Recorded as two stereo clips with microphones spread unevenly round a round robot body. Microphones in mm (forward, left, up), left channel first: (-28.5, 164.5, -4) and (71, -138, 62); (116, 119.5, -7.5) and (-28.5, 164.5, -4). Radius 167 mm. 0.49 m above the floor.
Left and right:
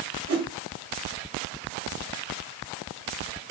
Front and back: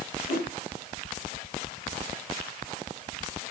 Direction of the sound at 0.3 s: 120° right.